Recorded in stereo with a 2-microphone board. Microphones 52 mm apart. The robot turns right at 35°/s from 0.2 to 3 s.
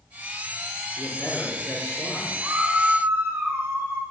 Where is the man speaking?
25° left, 6.5 m; by 2.3 s 75° left, 6.5 m.